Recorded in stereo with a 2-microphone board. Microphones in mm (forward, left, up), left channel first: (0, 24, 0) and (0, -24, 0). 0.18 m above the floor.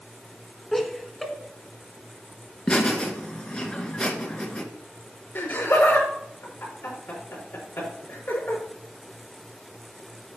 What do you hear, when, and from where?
0.7 s laughter: 5° left (ahead or behind), 1.6 m
2.7 s laughter: 25° left (ahead or behind), 2.5 m
5.3 s laughter: 50° left (ahead or behind), 4.5 m